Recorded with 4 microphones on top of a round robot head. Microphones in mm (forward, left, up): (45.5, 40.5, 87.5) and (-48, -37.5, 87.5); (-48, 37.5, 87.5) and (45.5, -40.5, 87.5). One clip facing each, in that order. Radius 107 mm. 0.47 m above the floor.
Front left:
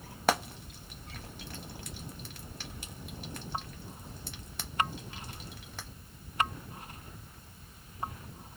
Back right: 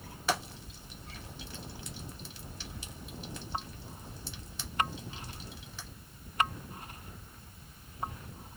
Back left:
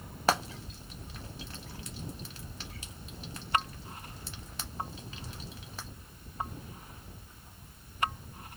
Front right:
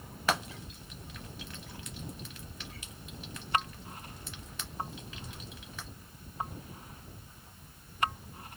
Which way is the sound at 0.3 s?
80° left.